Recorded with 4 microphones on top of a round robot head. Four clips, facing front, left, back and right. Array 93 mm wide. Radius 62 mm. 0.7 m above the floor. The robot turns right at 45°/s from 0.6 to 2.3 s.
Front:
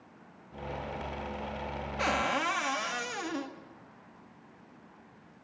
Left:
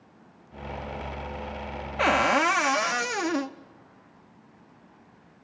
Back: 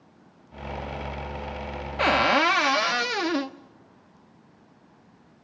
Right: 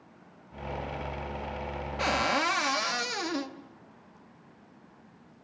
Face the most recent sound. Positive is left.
turn(degrees=145)